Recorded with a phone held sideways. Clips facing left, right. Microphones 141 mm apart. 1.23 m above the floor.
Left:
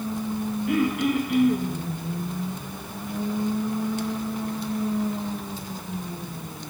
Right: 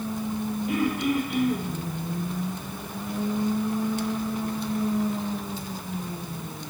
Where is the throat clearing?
80° left, 1.1 m.